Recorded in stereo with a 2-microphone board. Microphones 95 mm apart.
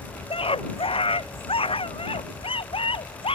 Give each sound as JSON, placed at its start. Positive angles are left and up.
{"t": 0.3, "sound": "a scream", "side_deg": 80}